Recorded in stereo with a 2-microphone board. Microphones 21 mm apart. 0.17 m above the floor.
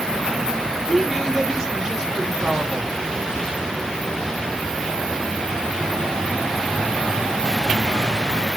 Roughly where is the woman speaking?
Right.